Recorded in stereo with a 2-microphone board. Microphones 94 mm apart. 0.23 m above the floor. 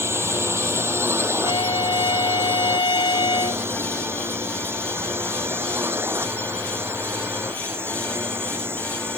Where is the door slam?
No door slam in this recording.